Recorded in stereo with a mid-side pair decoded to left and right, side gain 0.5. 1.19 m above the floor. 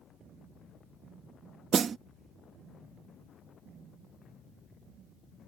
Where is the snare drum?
40° right.